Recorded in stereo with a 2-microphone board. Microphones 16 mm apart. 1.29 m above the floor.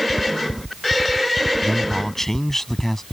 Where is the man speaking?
35° left (ahead or behind); by 3.0 s 30° left (ahead or behind).